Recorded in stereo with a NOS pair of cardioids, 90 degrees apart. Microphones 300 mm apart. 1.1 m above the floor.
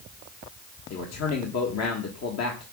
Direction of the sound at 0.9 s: 60° left.